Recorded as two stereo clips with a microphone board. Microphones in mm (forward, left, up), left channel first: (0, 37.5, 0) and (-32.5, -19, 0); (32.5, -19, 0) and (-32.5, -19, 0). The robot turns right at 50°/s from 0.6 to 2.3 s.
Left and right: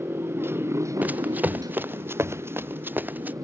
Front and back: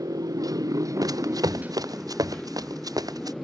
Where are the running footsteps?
175° left; by 3.3 s straight behind.